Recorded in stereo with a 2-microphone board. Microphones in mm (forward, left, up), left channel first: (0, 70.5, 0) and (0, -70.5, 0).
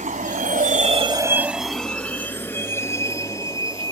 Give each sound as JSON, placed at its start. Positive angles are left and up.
{"t": 0.0, "sound": "a vehicle", "side_deg": -65}